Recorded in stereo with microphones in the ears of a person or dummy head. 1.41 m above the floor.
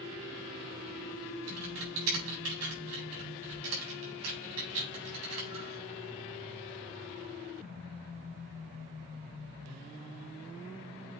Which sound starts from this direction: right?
Typing on a keyboard, at 1.5 s.